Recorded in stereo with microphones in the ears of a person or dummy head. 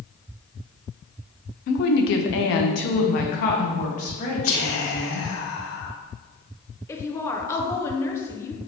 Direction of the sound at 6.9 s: 15° left (ahead or behind).